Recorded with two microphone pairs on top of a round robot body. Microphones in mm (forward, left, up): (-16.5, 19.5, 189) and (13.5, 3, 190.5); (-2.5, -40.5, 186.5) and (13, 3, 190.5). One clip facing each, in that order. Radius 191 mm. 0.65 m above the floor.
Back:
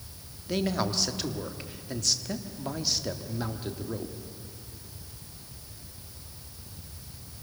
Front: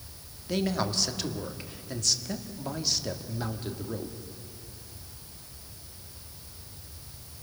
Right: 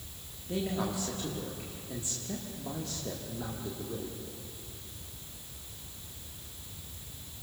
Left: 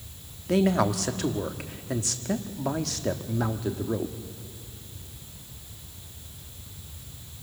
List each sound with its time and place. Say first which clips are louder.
0.5 s a man speaking: even, left 10 dB; 65° left, 1.8 m